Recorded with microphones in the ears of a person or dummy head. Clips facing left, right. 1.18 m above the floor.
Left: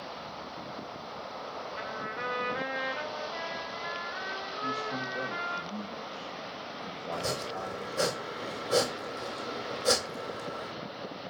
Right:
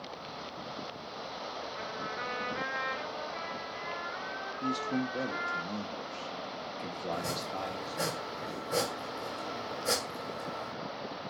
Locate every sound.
1.7 s a trumpet: 80° left, 3.5 m
4.6 s a man speaking: 25° right (ahead or behind), 1.4 m
7.1 s chopping: 50° left (ahead or behind), 2 m